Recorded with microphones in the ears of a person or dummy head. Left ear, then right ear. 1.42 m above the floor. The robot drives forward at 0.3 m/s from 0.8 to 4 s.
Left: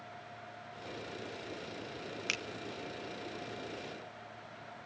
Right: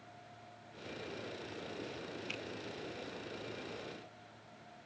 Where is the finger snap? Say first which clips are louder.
Left 9 dB; 65° left (ahead or behind), 0.8 m.